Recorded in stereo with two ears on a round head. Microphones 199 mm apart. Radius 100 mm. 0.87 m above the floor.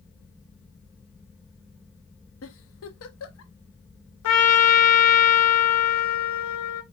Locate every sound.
2.4 s a giggle: 70° left (ahead or behind), 1.0 m
4.2 s a trumpet: 80° left, 1.7 m